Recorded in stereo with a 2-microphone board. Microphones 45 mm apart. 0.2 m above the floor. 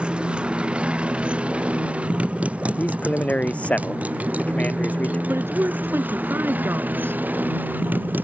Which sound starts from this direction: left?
A man speaking, at 2.8 s.